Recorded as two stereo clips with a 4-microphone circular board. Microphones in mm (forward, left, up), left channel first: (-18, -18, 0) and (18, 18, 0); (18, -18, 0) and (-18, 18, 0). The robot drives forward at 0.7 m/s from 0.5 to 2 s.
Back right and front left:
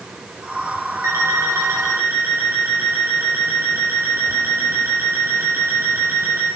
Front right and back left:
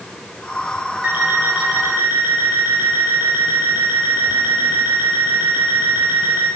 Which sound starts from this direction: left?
An alarm clock, at 1.0 s.